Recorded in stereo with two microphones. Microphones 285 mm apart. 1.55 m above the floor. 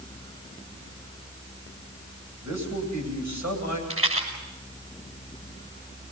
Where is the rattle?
50° right (ahead or behind), 6 m.